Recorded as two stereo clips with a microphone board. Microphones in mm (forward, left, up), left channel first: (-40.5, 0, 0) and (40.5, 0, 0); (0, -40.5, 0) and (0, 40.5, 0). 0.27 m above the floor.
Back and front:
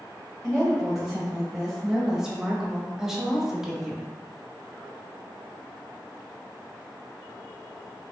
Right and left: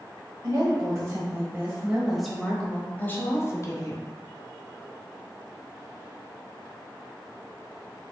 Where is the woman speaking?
85° left, 1.4 m; by 4.1 s 85° right, 1.4 m.